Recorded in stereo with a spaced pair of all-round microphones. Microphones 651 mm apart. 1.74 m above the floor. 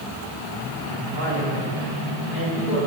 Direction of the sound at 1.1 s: 65° left (ahead or behind).